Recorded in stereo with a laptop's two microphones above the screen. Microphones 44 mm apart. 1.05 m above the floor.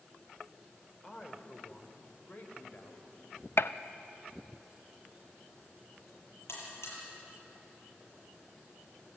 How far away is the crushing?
I don't hear crushing.